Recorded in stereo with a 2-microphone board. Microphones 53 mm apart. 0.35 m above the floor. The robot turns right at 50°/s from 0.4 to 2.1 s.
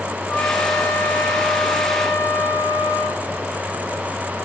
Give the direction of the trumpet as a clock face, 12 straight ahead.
11 o'clock.